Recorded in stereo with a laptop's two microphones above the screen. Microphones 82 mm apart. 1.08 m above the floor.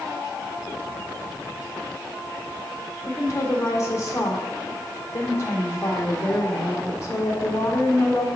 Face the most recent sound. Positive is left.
turn(degrees=35)  # may be behind; listen again after turning